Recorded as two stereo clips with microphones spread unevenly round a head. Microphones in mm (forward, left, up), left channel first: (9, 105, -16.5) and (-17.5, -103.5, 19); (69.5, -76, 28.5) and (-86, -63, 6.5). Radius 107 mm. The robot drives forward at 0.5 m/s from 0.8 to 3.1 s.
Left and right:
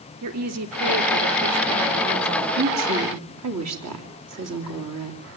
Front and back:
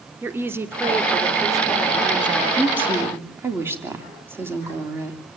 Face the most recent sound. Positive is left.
turn(degrees=-110)